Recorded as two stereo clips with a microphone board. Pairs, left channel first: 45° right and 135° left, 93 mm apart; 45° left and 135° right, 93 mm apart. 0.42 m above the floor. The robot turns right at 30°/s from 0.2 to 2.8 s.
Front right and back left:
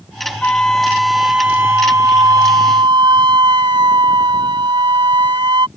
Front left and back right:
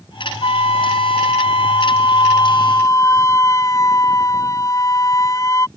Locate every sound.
0.4 s a flute: 30° left; by 5.7 s 100° left